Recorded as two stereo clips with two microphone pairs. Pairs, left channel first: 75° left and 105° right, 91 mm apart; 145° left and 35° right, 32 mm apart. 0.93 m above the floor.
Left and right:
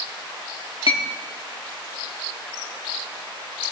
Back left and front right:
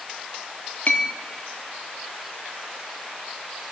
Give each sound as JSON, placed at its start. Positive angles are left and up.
{"t": 0.9, "sound": "a clink", "azimuth_deg": 100, "distance_m": 1.2}